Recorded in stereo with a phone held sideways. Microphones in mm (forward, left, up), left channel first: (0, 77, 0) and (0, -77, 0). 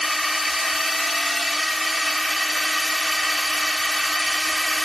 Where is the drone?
Centre (ahead or behind).